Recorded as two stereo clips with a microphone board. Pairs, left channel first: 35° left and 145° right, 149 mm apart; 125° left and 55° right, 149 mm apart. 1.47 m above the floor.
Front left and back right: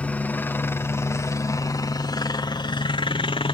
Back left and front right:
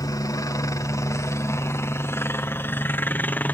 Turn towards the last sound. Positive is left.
turn(degrees=55)